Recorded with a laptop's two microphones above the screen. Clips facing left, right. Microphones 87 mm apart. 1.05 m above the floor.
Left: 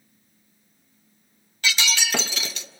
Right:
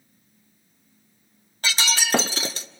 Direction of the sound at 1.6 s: 35° right (ahead or behind).